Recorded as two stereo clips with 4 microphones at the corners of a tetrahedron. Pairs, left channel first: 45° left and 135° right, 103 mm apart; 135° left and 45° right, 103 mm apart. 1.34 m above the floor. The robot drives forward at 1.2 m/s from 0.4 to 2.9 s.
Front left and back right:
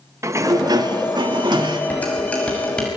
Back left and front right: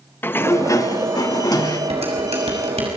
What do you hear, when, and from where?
0.2 s a sliding door: 170° right, 0.7 m; by 1.8 s straight behind, 2 m
1.9 s dishes clattering: 30° right, 6.5 m; by 2.9 s 35° right, 5.5 m